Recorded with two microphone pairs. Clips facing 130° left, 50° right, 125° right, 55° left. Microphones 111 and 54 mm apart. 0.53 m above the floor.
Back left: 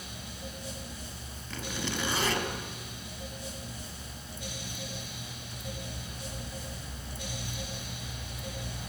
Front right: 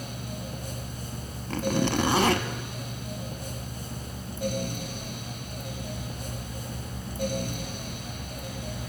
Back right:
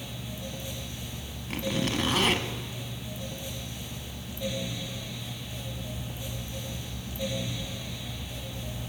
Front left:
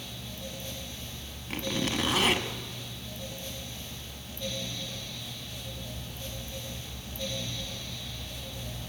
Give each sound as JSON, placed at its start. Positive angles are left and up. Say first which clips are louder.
{"t": 1.5, "sound": "a zipper", "louder": "front right 11 dB, back right 2 dB", "azimuth_deg": -35, "distance_m": 0.6}